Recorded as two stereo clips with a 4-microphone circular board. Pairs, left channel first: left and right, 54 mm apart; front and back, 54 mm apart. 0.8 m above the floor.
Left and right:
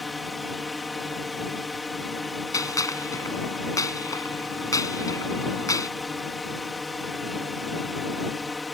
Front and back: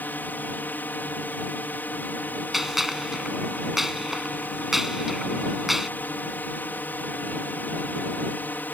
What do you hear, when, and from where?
0.0 s a drone: straight ahead
2.5 s a gunshot: 95° left